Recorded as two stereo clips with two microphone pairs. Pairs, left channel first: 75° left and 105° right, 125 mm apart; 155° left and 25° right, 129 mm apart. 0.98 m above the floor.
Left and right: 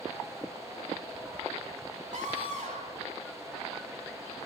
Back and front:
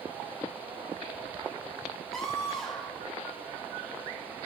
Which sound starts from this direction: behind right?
A scream, at 2.1 s.